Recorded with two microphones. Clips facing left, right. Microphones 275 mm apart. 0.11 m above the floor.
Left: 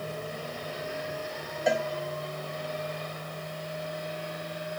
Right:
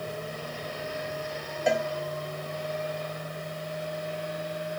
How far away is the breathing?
I don't hear breathing.